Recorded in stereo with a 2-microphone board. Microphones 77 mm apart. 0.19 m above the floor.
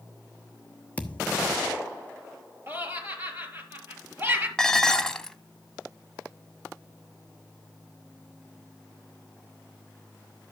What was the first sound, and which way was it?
A thud, 20° left (ahead or behind).